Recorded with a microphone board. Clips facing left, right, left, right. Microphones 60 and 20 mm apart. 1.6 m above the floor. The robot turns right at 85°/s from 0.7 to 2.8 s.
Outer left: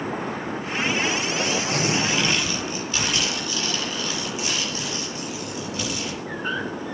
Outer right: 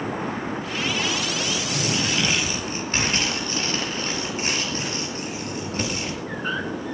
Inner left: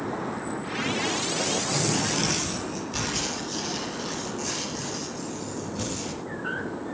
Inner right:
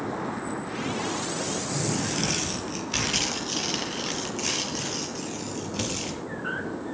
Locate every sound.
1.4 s tearing paper: 105° left, 6 m; by 6.2 s 135° right, 6 m